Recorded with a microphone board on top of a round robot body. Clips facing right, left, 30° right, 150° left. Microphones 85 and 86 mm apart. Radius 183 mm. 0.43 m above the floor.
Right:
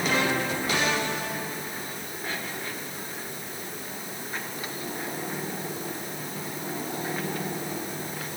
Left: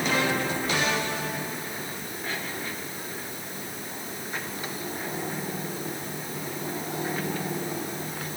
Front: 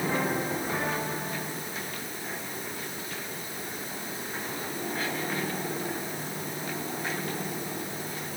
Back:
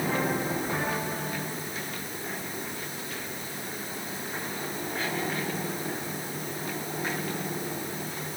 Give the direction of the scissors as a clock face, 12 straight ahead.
No scissors in this recording.